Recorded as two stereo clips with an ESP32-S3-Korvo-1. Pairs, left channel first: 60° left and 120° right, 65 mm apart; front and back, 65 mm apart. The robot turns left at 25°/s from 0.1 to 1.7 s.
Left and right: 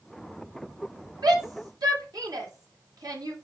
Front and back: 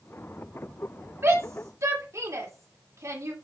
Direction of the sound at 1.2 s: 125° right.